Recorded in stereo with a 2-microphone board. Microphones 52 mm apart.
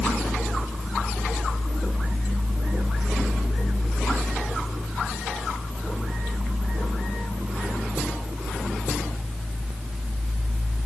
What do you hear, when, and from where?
Only background noise.